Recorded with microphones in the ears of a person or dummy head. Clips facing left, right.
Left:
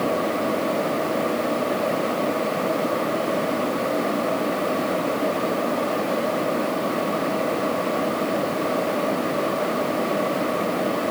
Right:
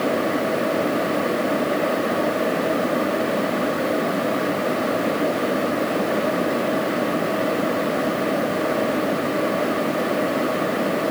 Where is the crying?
I don't hear crying.